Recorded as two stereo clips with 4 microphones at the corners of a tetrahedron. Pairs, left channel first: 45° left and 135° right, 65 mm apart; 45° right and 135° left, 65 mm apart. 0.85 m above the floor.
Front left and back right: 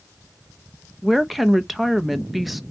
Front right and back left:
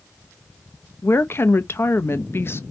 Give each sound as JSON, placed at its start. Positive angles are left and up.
{"t": 1.0, "sound": "a woman speaking", "azimuth_deg": -50, "distance_m": 0.7}